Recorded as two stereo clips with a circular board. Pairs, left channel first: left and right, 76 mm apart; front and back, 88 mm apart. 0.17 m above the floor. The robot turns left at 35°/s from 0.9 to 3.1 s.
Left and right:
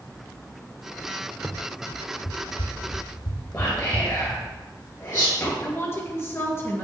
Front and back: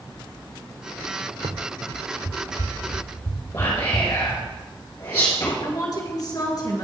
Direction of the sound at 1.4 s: 170° right.